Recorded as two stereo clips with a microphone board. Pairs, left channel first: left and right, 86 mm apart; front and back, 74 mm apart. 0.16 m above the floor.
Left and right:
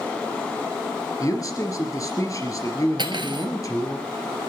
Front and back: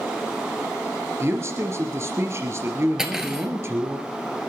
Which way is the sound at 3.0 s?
100° right.